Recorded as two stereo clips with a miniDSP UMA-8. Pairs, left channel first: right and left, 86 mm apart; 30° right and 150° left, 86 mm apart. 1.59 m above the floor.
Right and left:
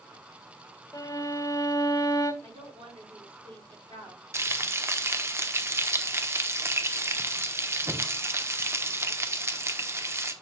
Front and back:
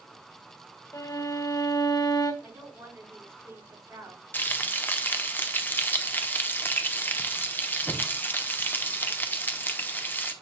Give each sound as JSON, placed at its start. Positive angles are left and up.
{"t": 0.9, "sound": "a violin", "azimuth_deg": -55, "distance_m": 2.0}
{"t": 2.4, "sound": "a woman speaking", "azimuth_deg": 85, "distance_m": 6.5}
{"t": 4.3, "sound": "frying", "azimuth_deg": 35, "distance_m": 1.0}